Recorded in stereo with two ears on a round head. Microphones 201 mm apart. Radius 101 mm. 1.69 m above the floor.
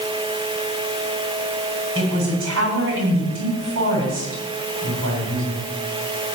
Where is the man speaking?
60° right (ahead or behind), 8 m.